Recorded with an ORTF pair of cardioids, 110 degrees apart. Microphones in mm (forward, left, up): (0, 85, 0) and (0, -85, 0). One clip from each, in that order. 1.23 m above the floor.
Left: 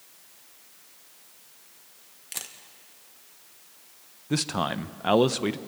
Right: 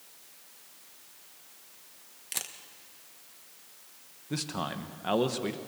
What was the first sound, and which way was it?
A camera shutter, 5° right.